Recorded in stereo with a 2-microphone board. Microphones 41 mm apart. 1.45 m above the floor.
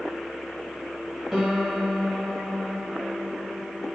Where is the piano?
Centre (ahead or behind), 0.6 m.